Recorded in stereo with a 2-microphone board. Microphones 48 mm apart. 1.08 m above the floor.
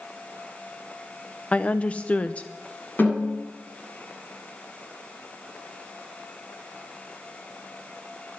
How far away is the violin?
I don't hear a violin.